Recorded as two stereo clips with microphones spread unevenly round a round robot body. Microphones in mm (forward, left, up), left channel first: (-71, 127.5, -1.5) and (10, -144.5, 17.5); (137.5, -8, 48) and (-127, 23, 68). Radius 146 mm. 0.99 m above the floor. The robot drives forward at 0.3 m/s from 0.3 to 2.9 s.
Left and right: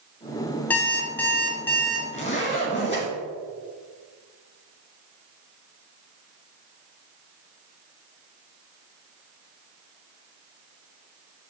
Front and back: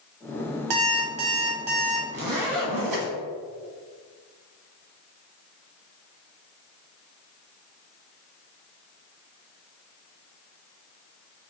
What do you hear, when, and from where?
0.7 s an alarm clock: 170° right, 1.5 m
2.1 s a zipper: 175° left, 1.4 m